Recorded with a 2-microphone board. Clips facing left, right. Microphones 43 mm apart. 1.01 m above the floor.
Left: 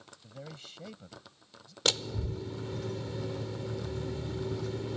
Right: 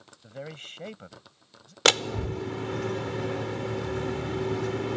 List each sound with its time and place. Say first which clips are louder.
0.2 s a man speaking: right 7 dB; 50° right (ahead or behind)
1.9 s a door slam: right 9 dB; 75° right (ahead or behind)